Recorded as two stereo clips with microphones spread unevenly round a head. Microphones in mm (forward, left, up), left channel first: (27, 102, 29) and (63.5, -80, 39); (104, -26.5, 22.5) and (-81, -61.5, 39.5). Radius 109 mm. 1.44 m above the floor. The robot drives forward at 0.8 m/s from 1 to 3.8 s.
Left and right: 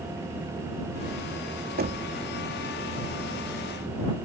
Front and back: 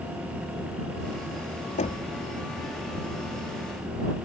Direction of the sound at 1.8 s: 40° right.